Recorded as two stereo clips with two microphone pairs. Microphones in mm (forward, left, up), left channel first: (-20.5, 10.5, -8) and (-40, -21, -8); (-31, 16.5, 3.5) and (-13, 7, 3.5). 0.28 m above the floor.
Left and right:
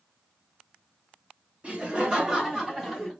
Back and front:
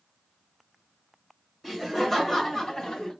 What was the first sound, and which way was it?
Laughter, 120° right.